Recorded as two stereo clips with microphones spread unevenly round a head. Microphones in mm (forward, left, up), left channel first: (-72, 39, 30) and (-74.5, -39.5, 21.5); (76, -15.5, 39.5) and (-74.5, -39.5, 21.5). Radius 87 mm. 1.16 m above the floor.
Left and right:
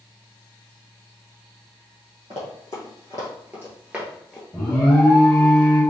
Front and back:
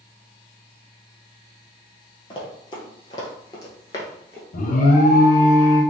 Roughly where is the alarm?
Ahead.